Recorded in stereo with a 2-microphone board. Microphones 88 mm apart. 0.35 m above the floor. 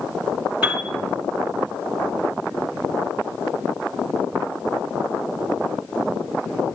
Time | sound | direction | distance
0.6 | a piano | 15° right (ahead or behind) | 2.5 m